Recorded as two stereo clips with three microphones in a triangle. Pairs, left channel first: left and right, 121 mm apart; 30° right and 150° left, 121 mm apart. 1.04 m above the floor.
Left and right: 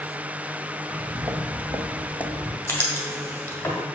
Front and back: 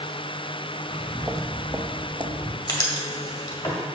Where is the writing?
20° left, 1.4 m.